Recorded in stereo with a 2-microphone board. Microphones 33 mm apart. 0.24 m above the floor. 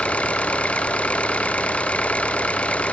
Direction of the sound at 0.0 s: 45° left (ahead or behind).